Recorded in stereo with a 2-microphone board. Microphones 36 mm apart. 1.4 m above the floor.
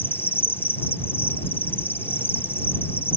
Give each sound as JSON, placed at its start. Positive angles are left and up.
{"t": 0.0, "sound": "an insect", "side_deg": 80}